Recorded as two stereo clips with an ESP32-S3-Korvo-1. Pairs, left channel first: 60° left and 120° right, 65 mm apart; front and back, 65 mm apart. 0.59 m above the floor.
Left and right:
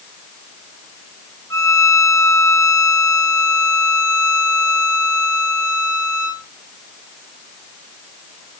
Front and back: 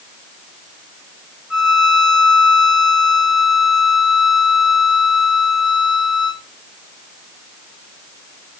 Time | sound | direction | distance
1.5 | a violin | 100° left | 1.4 m